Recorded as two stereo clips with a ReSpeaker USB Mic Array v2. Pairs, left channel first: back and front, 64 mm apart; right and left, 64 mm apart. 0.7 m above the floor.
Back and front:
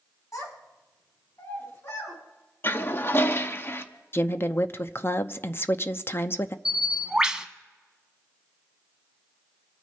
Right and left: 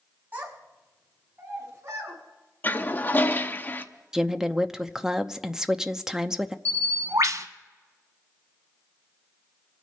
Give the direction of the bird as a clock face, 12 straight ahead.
9 o'clock.